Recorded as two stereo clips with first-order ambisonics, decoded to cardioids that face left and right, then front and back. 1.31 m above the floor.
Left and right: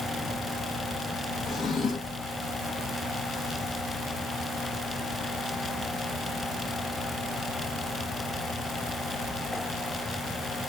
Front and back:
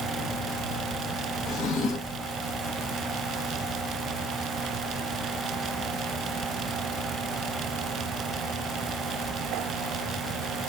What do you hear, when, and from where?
1.5 s a drawer: 30° left, 1.2 m